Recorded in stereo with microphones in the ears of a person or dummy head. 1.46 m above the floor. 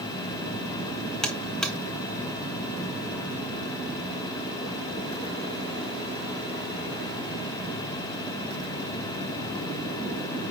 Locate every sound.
1.2 s a buzzer: centre (ahead or behind), 0.7 m